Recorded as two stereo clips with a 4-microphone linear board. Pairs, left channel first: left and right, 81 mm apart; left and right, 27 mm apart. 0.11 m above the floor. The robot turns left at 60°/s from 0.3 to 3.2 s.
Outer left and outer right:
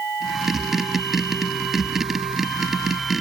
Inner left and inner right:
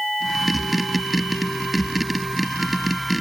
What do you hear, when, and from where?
Only background noise.